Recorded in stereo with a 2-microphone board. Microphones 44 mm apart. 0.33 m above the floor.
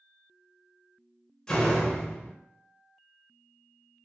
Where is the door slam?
15° left (ahead or behind), 0.6 m.